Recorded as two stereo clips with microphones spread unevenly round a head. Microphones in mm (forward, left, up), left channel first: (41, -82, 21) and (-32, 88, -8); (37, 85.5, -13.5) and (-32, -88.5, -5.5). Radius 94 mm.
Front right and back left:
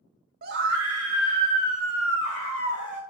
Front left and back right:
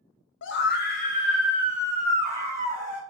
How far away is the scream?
About 0.5 m.